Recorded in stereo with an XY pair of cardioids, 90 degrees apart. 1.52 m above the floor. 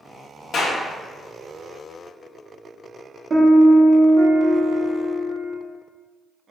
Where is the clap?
65° left, 0.9 m.